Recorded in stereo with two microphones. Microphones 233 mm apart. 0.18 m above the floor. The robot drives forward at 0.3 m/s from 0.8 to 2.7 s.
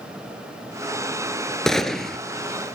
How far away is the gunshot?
About 0.7 m.